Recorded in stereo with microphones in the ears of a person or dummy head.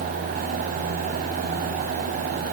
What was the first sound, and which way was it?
Only background noise.